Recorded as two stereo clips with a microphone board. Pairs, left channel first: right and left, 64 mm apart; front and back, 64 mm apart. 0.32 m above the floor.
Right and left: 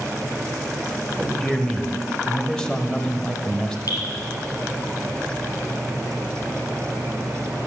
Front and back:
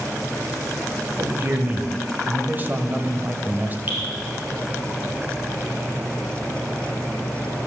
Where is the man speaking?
160° right, 1.1 m.